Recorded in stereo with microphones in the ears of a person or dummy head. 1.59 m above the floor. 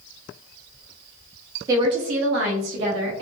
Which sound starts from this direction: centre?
A woman speaking, at 1.7 s.